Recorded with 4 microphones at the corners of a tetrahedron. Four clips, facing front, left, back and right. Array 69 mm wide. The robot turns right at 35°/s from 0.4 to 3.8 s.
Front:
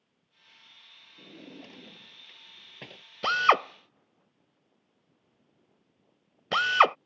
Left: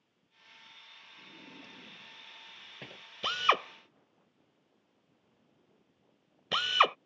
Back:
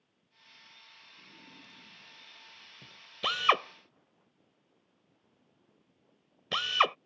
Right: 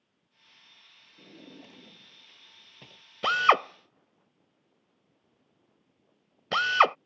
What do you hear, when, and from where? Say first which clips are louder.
1.2 s a drawer: right 4 dB, front 10 dB; 35° right; by 3.0 s 30° left
3.2 s a drill: right 6 dB, front 5 dB; 60° right; by 7.0 s 40° right